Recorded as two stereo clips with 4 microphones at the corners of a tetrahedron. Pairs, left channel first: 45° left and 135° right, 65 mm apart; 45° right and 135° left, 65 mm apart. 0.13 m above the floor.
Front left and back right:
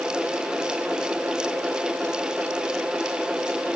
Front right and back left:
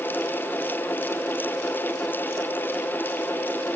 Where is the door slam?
I don't hear a door slam.